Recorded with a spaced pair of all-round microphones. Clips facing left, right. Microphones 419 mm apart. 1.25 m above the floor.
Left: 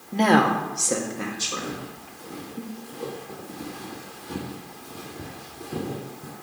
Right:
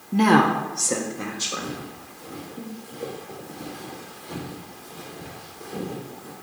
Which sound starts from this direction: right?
A woman speaking, at 0.1 s.